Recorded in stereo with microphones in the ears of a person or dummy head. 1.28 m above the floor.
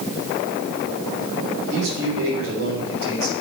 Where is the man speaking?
70° right (ahead or behind), 3 m.